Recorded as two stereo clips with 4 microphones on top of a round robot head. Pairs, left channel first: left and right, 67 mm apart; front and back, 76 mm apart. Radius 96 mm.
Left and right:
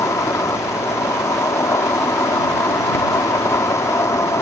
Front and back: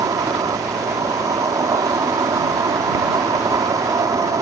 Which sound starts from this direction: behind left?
An insect, at 0.0 s.